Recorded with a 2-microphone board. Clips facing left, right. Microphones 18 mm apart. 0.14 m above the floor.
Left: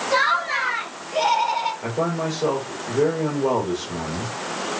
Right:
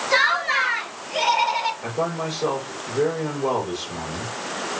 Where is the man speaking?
5° left (ahead or behind), 2.5 m.